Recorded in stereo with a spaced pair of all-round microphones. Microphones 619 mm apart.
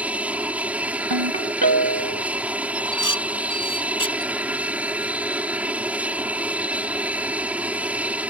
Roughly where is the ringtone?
Right.